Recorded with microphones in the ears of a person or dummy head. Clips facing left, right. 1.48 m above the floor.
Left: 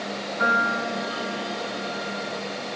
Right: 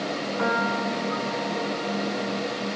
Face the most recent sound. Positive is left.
turn(degrees=-70)  # may be behind; listen again after turning